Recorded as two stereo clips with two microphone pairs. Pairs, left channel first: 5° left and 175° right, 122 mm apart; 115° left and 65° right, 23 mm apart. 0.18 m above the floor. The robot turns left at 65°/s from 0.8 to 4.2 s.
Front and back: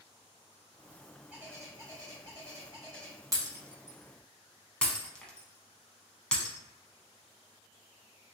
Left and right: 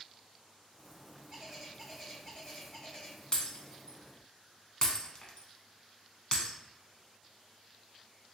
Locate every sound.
1.3 s a bird: 105° right, 1.7 m; by 3.2 s 130° left, 1.7 m
3.3 s breaking glass: 140° left, 0.7 m; by 6.6 s 80° left, 0.7 m